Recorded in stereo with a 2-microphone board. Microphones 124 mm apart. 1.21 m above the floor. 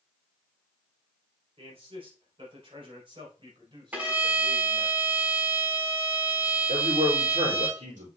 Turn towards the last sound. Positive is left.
turn(degrees=-85)